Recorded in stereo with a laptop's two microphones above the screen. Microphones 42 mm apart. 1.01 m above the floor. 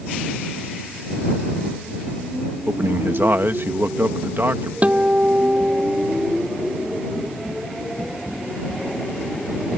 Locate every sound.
2.7 s a man speaking: 60° right (ahead or behind)
4.8 s a guitar: 35° right (ahead or behind)